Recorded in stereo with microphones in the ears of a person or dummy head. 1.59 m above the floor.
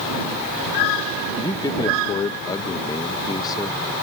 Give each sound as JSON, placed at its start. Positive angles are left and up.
{"t": 1.4, "sound": "a man speaking", "side_deg": 25}